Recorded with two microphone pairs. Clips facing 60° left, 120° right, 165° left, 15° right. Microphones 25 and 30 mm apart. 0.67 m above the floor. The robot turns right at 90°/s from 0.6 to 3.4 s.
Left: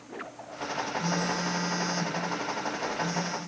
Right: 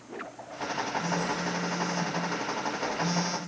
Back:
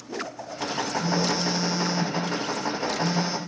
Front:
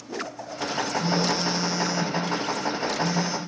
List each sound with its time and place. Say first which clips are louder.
1.0 s a phone buzzing: left 1 dB, even; 25° left, 1.4 m; by 3.4 s 120° right, 1.4 m